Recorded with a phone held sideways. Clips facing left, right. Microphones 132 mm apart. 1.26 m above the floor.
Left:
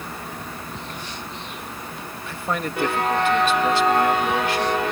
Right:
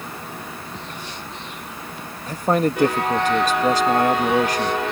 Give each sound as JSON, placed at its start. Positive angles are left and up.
{"t": 2.3, "sound": "a man speaking", "side_deg": -40}